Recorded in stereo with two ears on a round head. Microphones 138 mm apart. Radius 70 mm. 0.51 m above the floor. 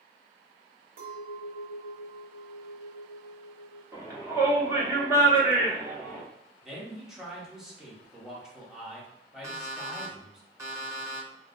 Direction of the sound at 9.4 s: 20° right (ahead or behind).